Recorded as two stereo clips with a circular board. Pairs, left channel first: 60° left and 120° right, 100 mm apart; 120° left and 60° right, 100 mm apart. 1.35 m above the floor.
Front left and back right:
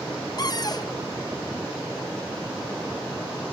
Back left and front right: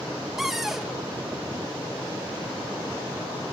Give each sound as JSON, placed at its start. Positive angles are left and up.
{"t": 0.4, "sound": "a cupboard door", "azimuth_deg": 25, "distance_m": 0.6}